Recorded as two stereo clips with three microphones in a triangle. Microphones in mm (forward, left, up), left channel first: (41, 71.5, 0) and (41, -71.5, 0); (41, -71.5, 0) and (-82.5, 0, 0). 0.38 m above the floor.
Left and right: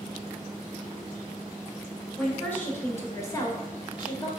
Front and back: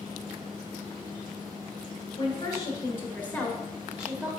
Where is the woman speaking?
15° left, 1.9 m; by 4.3 s 85° left, 1.6 m.